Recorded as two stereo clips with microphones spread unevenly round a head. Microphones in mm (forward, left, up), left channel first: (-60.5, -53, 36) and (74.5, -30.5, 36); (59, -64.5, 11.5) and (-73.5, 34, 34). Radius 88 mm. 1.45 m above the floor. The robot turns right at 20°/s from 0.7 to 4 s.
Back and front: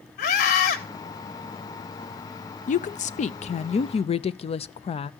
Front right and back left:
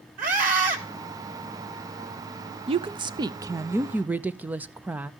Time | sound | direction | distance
0.2 | a scream | 175° right | 3.5 m
2.7 | a woman speaking | 160° right | 0.5 m